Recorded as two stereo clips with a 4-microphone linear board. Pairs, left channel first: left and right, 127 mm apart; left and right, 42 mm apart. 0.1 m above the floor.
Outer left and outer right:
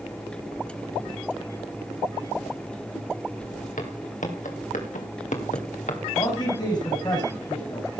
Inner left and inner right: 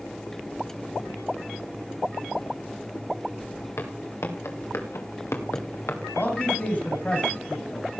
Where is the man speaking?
35° left (ahead or behind), 5.5 m.